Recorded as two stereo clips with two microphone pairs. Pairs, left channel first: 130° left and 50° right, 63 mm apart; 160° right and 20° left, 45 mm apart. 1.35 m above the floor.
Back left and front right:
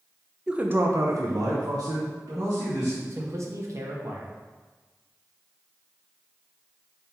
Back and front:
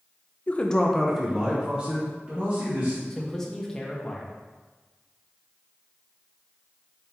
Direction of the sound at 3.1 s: 85° right.